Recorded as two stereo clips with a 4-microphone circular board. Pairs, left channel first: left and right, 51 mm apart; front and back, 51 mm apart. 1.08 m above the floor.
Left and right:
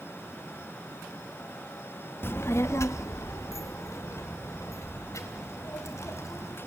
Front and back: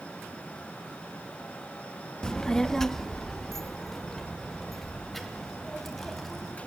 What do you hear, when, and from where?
2.2 s a child speaking: 70° left, 0.5 m; by 6.6 s 85° left, 4 m